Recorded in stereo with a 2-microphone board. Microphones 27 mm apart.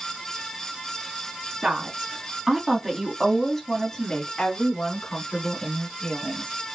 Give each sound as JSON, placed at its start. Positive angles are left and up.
{"t": 1.6, "sound": "a woman speaking", "side_deg": -35, "distance_m": 1.9}